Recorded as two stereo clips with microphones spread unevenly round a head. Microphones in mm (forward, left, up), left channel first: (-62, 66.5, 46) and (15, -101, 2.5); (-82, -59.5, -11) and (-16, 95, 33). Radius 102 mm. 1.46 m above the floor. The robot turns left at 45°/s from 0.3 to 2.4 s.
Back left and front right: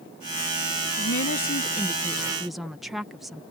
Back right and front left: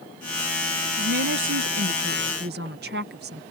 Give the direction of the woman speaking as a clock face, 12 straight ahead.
9 o'clock.